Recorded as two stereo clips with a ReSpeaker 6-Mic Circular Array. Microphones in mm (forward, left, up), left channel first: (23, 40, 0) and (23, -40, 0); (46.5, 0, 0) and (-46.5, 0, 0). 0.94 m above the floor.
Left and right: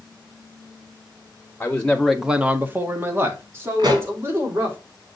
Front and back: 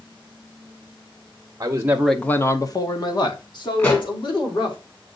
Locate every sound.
1.6 s a man speaking: 145° left, 0.8 m; by 4.8 s 30° right, 3 m
3.8 s a pop: 65° right, 2.0 m